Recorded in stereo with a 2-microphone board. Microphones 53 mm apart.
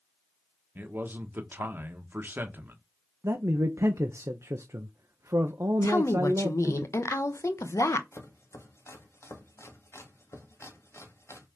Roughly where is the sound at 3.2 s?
Right.